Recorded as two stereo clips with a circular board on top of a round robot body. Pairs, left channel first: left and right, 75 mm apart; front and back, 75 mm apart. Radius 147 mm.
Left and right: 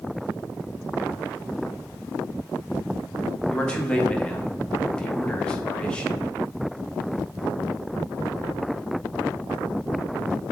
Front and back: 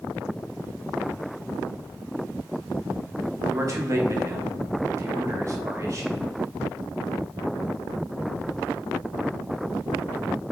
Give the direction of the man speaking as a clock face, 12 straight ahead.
7 o'clock.